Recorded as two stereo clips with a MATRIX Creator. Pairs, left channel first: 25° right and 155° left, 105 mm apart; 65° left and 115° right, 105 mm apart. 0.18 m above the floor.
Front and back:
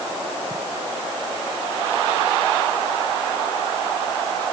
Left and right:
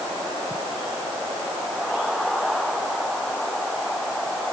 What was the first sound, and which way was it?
Only background noise.